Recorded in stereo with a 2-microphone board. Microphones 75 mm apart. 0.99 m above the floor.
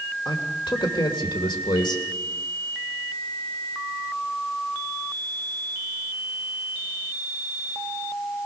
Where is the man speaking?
80° left, 3 m.